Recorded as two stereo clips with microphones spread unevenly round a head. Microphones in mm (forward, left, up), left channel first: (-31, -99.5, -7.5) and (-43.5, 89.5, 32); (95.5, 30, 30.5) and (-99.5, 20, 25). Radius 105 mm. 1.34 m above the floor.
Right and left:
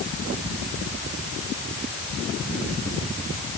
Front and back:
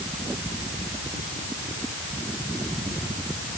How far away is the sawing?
No sawing in this recording.